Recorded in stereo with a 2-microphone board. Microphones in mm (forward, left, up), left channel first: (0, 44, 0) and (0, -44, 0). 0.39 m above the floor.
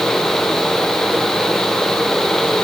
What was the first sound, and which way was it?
Only background noise.